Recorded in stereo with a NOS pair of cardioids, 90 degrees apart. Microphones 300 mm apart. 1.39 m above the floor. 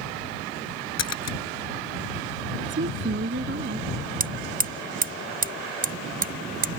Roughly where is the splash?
Ahead left.